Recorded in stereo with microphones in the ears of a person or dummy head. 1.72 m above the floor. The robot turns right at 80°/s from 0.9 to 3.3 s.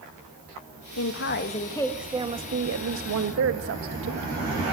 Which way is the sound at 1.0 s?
100° left.